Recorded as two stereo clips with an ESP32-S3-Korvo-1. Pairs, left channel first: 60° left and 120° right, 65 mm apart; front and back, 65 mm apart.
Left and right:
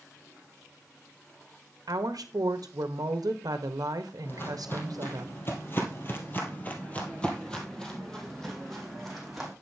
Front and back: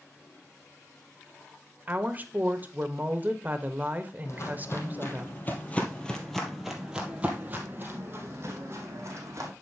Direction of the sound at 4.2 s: 20° left.